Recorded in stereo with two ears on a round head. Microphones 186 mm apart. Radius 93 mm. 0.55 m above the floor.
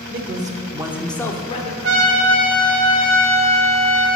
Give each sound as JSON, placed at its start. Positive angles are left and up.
{"t": 0.1, "sound": "a man speaking", "side_deg": -50, "distance_m": 1.3}
{"t": 1.8, "sound": "a trumpet", "side_deg": -60, "distance_m": 1.5}